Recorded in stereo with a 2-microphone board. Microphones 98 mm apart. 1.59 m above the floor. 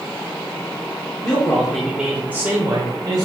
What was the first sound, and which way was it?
A man speaking, 30° left (ahead or behind).